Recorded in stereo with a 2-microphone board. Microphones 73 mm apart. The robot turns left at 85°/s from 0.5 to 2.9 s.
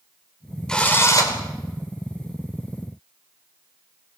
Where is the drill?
170° left, 3.5 m; by 1.4 s 110° left, 3.5 m.